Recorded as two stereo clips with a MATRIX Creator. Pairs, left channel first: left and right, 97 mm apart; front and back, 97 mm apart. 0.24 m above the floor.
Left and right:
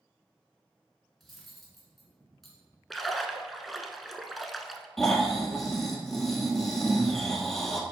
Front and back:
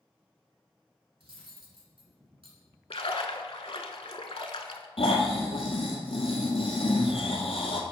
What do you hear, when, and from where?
1.2 s cutlery clinking: straight behind, 1.7 m
2.9 s a splash: straight ahead, 0.6 m
5.0 s snoring: 5° left, 1.1 m